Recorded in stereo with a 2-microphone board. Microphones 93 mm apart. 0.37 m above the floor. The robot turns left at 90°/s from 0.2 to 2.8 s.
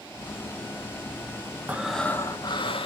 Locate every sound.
1.7 s breathing: 160° right, 0.5 m; by 2.9 s 100° left, 0.5 m